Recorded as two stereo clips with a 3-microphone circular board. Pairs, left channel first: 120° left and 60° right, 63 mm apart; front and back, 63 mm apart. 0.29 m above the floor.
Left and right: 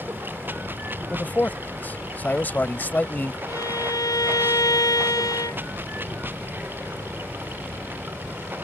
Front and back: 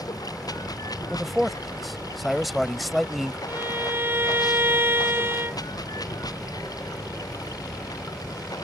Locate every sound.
0.0 s running water: 5° right
1.1 s a man speaking: 90° left
3.5 s a violin: 125° left